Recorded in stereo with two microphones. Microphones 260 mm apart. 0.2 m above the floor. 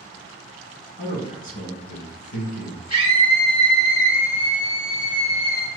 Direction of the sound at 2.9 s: 20° right (ahead or behind).